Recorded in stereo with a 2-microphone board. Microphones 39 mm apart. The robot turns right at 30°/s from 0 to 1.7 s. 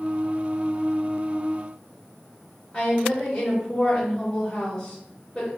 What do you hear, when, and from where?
2.7 s a woman speaking: 15° left (ahead or behind), 2.0 m